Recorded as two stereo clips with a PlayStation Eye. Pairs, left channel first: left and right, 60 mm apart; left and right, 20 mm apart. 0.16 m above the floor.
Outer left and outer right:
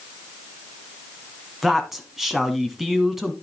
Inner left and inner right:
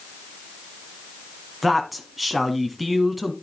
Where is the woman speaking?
5° right (ahead or behind), 1.1 m.